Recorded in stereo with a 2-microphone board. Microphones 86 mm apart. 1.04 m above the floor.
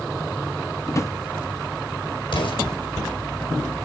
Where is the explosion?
80° left, 5 m.